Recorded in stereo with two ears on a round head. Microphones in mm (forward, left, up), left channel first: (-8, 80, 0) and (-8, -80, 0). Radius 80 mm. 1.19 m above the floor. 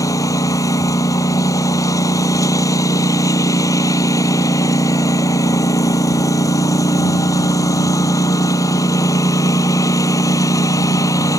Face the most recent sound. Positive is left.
turn(degrees=20)  # may be behind; listen again after turning